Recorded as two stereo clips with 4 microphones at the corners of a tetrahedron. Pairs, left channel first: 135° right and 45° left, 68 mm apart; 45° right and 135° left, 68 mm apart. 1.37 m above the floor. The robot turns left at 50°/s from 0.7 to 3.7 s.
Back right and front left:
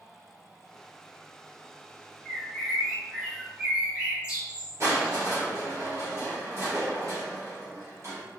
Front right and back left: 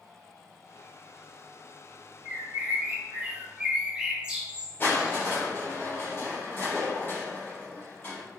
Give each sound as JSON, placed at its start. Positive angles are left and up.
{"t": 2.2, "sound": "a bird", "azimuth_deg": 155, "distance_m": 1.1}
{"t": 4.8, "sound": "crushing", "azimuth_deg": 10, "distance_m": 2.0}